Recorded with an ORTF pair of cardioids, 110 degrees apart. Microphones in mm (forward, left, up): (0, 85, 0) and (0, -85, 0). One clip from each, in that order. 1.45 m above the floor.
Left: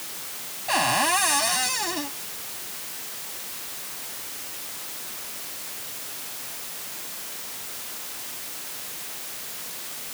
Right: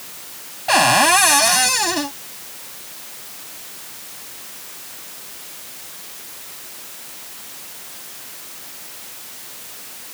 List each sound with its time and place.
0.7 s a cupboard door: 50° right